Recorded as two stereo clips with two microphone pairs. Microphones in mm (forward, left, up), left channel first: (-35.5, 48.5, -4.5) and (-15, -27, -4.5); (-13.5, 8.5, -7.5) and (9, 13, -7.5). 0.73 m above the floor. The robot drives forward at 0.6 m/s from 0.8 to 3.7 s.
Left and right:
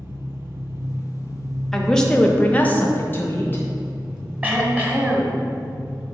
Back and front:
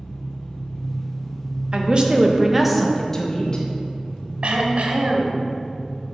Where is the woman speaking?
25° left, 0.8 m; by 3.6 s 155° left, 0.8 m.